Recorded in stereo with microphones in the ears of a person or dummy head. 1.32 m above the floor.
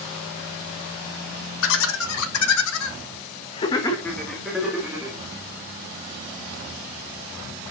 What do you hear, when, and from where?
1.6 s laughter: 70° left (ahead or behind), 2.5 m; by 5.2 s 10° right (ahead or behind), 3 m